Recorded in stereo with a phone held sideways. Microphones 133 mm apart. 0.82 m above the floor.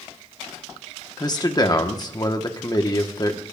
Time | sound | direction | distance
1.2 | a man speaking | 30° left (ahead or behind) | 1.4 m